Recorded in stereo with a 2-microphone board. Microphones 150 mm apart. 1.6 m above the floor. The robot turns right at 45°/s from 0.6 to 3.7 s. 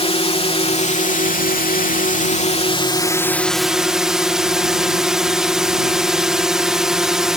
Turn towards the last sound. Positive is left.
turn(degrees=-175)